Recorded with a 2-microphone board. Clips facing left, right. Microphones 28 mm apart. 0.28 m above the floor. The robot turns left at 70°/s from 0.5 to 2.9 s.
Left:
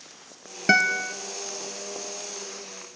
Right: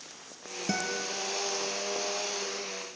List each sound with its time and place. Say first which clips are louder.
0.7 s a guitar: left 12 dB; 90° left, 0.9 m; by 1.2 s 60° left, 0.9 m